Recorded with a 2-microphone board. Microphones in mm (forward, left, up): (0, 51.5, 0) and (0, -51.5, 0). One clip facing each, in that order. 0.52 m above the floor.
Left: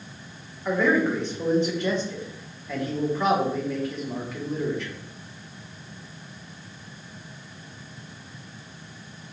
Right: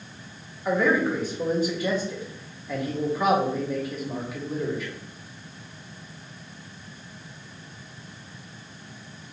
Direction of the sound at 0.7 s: 5° right (ahead or behind).